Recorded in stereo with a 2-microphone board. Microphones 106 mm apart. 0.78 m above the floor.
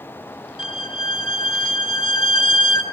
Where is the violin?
55° left (ahead or behind), 1.5 m.